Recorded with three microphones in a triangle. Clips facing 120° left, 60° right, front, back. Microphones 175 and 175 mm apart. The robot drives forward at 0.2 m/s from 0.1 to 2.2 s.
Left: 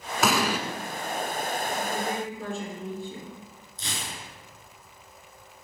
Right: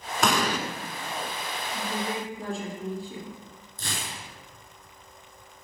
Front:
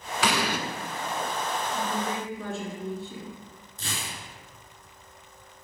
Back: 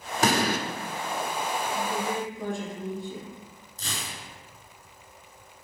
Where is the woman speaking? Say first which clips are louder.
Left 2 dB, back 1 dB; 105° right, 2.5 m.